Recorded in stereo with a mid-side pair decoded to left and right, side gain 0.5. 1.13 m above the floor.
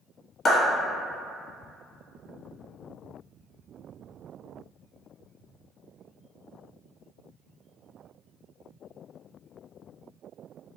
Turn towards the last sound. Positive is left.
turn(degrees=45)